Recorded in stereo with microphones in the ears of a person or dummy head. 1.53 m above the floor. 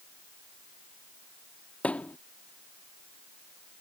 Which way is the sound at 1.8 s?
5° left (ahead or behind).